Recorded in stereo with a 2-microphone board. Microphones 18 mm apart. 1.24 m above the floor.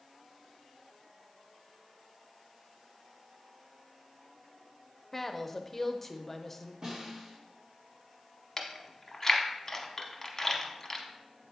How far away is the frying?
I don't hear frying.